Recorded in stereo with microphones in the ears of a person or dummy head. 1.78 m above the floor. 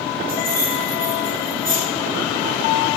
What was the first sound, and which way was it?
Keys jangling, 55° right (ahead or behind).